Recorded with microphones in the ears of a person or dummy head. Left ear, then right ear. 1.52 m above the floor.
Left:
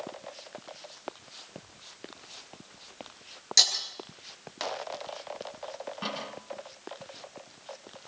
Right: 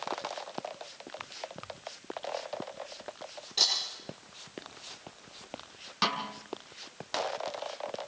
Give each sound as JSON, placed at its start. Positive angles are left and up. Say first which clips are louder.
{"t": 3.6, "sound": "breaking glass", "louder": "left 4 dB", "side_deg": 65, "distance_m": 8.5}
{"t": 6.0, "sound": "a snare drum", "louder": "right 7 dB", "side_deg": -75, "distance_m": 4.5}